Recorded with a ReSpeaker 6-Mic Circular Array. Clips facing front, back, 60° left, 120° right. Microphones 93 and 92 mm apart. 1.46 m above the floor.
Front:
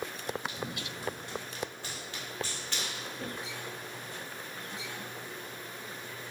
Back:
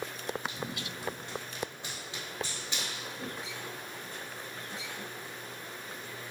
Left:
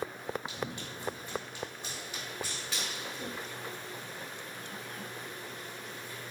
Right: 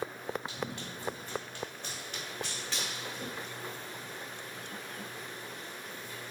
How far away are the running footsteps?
About 2 m.